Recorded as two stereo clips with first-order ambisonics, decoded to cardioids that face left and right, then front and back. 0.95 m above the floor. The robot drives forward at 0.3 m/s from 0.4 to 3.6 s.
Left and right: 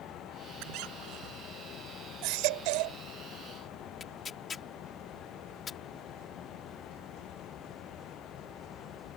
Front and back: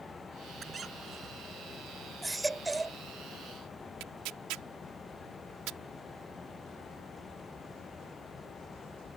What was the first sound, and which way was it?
A squeak, 110° right.